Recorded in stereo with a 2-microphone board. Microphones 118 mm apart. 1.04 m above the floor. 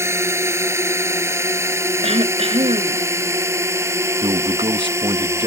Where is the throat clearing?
60° right (ahead or behind).